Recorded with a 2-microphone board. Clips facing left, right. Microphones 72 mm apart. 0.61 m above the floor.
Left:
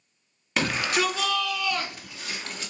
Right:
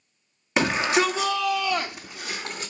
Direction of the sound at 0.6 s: 20° right (ahead or behind).